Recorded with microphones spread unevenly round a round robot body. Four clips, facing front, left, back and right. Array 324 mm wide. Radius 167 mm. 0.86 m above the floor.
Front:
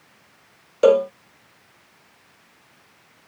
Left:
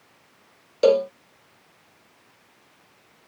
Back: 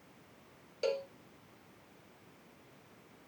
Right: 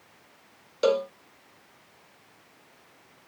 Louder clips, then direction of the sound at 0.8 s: Left 6 dB, front 20 dB; 20° left.